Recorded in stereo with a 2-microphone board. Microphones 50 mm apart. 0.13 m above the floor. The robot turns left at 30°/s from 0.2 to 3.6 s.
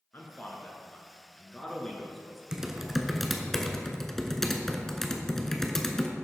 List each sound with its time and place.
0.1 s a man speaking: 40° left (ahead or behind), 1.7 m; by 2.4 s 5° left (ahead or behind), 1.7 m
2.5 s typing on a keyboard: 15° right (ahead or behind), 0.9 m; by 6.1 s 5° left (ahead or behind), 0.9 m